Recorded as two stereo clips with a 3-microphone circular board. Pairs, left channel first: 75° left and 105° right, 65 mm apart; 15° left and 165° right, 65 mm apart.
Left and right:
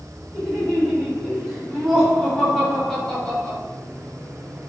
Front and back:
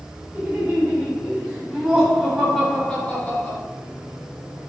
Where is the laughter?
165° left, 1.8 m; by 3.6 s 10° left, 1.7 m.